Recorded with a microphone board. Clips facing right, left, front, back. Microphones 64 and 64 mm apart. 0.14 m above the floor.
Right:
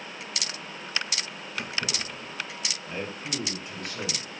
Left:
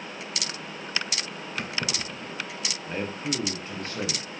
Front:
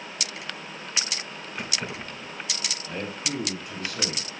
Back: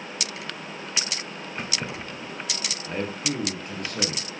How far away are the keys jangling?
About 3 m.